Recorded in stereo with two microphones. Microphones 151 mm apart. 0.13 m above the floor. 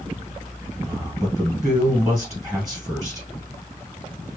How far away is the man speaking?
About 1.9 m.